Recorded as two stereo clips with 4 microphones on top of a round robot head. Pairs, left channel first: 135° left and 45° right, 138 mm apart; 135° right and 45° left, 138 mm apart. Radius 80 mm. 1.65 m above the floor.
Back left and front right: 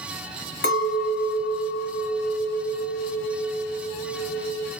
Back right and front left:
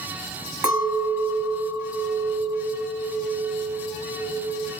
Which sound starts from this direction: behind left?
A clink, at 0.6 s.